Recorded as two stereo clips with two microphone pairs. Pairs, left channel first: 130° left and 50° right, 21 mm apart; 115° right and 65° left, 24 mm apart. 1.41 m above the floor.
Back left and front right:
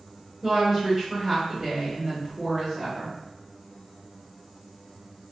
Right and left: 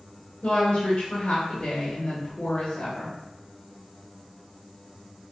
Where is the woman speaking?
115° right, 1.0 m.